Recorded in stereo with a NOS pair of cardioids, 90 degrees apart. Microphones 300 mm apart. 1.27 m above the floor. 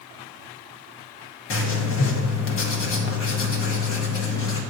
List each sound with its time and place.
1.5 s writing: 45° left, 1.3 m